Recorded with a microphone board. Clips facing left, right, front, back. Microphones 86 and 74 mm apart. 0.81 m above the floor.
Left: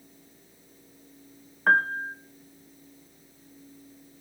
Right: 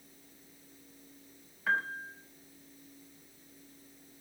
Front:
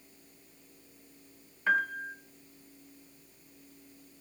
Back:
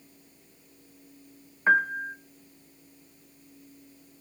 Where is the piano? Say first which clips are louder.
Left 10 dB, back 6 dB; 125° left, 1.0 m.